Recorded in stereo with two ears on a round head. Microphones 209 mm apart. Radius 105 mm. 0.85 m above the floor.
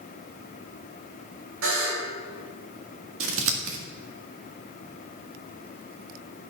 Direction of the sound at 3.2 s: 65° right (ahead or behind).